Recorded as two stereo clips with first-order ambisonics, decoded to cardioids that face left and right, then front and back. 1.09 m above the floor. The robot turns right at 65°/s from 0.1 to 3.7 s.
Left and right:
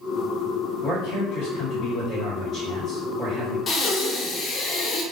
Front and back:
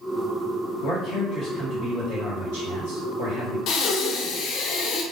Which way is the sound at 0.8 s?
45° left.